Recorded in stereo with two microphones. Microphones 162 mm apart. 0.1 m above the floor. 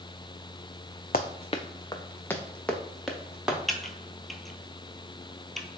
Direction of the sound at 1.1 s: 60° left (ahead or behind).